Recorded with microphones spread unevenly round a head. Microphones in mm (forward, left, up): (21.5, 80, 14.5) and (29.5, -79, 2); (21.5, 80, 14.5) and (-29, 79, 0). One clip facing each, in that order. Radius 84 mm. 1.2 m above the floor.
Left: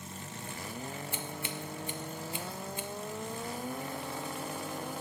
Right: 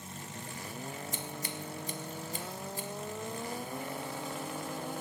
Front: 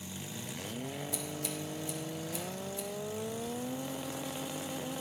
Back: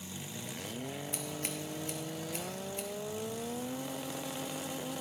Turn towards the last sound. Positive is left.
turn(degrees=-140)